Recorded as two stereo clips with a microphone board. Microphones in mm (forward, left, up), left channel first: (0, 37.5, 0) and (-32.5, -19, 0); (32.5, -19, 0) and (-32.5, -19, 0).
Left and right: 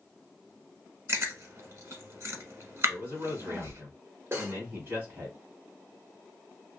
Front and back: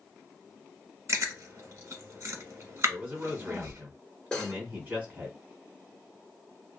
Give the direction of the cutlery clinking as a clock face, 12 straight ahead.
2 o'clock.